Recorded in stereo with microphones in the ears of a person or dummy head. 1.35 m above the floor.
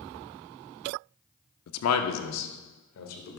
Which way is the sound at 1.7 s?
70° left (ahead or behind).